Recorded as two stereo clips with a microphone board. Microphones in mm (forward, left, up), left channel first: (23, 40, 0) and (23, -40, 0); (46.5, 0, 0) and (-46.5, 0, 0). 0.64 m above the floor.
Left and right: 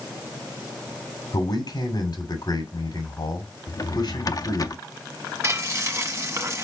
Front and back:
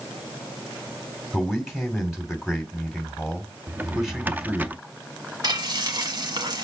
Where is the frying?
145° right, 1.3 m.